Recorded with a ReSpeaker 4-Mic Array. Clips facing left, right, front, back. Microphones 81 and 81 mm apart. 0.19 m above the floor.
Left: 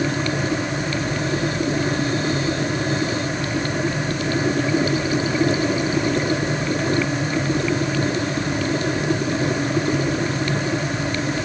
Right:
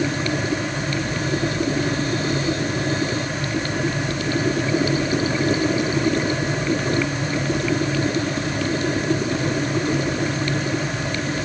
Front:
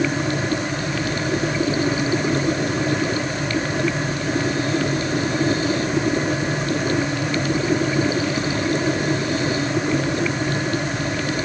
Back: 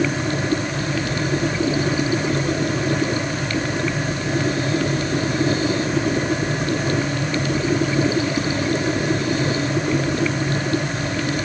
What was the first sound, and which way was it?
Only background noise.